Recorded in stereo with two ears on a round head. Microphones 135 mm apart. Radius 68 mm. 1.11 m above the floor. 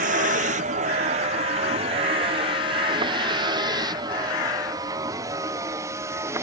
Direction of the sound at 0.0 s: 60° right (ahead or behind).